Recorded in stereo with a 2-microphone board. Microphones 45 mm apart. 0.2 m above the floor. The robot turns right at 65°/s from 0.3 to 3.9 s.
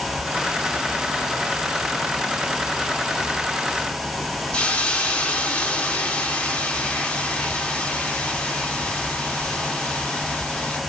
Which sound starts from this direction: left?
A hiss, at 4.5 s.